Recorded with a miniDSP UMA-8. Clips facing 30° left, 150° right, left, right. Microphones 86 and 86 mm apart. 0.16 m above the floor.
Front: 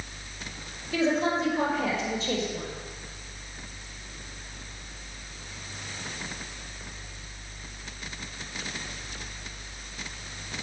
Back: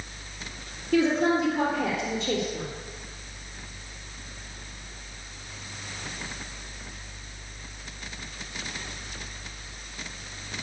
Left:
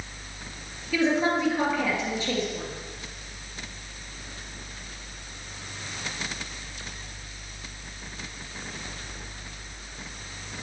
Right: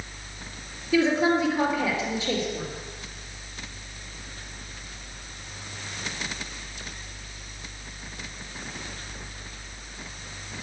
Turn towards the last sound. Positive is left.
turn(degrees=-160)